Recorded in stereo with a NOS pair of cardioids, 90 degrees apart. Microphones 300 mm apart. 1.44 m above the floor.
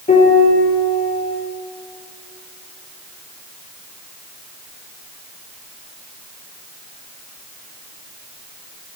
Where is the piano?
25° left, 4.5 m.